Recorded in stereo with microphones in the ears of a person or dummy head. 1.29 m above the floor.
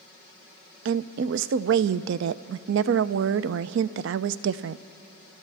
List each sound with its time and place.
0.8 s a woman speaking: 70° right (ahead or behind), 0.5 m